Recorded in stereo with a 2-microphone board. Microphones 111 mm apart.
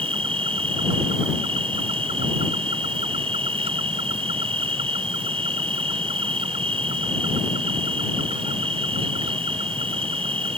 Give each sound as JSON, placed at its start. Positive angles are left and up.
{"t": 0.0, "sound": "an insect", "side_deg": -70}